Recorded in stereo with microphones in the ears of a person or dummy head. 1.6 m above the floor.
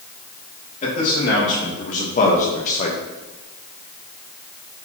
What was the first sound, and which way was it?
A man speaking, 45° left (ahead or behind).